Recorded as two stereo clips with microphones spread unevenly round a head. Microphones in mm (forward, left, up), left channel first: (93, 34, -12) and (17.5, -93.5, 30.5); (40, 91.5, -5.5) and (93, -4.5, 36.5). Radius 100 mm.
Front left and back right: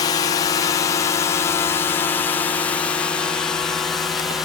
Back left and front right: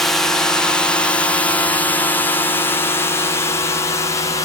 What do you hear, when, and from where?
0.0 s a drone: 60° left; by 4.5 s 135° left